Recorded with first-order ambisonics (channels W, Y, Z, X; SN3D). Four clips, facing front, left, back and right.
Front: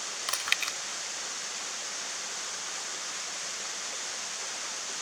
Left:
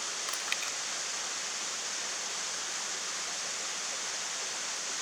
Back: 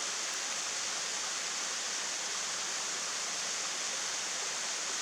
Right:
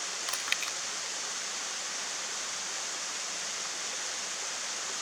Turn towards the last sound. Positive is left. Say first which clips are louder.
# right 3 dB, front 7 dB
turn(degrees=-10)